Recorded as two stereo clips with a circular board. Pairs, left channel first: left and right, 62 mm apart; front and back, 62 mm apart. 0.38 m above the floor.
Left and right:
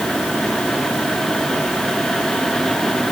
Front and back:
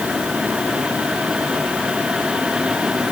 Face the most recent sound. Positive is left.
No sound to turn to.